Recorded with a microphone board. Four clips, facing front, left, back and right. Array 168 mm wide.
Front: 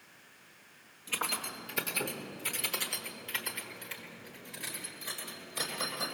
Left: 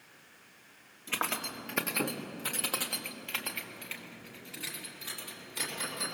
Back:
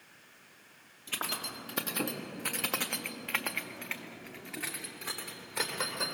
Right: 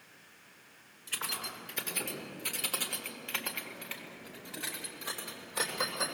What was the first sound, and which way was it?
Keys jangling, 100° left.